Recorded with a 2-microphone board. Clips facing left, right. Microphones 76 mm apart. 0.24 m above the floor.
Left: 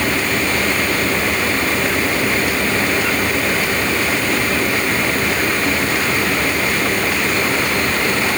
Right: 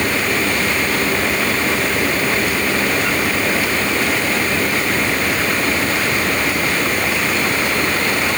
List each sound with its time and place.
Only background noise.